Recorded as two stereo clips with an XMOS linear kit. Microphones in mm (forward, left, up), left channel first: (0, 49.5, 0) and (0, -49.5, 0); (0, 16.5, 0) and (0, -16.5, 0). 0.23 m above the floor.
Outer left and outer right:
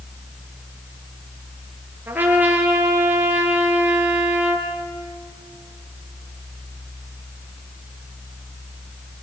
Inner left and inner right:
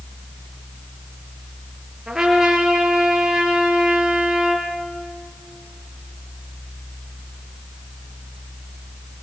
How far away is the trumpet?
About 4 m.